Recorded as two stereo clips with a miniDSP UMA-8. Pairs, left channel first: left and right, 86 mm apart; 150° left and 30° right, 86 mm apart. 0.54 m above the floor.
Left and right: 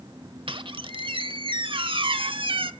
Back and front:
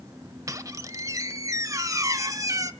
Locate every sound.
0.5 s a squeak: 80° right, 0.8 m